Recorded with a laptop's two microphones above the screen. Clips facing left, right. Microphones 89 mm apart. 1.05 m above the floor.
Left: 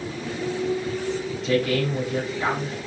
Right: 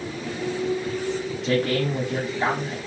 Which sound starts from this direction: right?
A man speaking, at 1.4 s.